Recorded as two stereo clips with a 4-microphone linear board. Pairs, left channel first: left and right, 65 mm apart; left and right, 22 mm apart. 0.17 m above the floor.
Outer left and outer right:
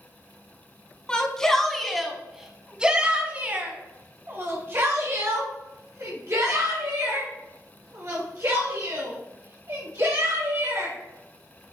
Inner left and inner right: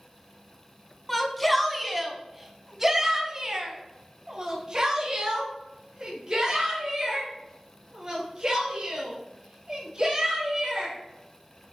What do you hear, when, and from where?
1.1 s a shout: 10° left (ahead or behind), 1.7 m; by 10.9 s 50° right (ahead or behind), 4.5 m